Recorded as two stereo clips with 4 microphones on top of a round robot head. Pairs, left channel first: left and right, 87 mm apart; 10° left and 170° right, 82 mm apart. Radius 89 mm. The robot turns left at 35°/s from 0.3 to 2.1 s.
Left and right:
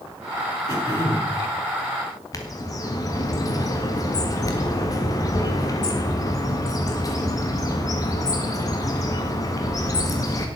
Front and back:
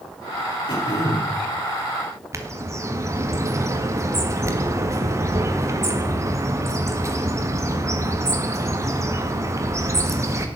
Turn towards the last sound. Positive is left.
turn(degrees=135)